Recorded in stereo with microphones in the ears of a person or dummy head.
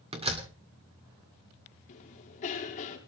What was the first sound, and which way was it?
A door slam, 25° right (ahead or behind).